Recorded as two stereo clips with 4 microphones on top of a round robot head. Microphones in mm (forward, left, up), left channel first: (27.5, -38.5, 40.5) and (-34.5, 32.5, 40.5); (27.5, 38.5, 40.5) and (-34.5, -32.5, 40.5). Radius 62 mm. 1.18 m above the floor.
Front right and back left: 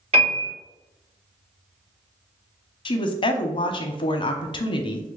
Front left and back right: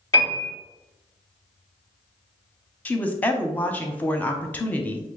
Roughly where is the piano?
Left.